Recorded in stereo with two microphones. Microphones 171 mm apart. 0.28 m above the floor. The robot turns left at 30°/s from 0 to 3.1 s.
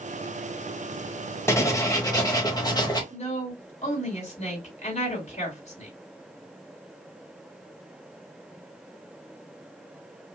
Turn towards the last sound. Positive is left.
turn(degrees=45)  # may be behind; listen again after turning